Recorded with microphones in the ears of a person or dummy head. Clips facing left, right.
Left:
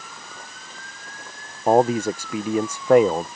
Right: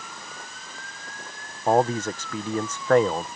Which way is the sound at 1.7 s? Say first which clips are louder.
Left 4 dB; 5° left (ahead or behind).